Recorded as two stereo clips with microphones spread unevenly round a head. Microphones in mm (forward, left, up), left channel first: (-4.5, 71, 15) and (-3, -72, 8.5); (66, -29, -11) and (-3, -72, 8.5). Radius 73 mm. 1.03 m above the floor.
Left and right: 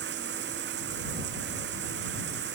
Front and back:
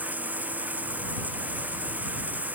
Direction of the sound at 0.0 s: 75° right.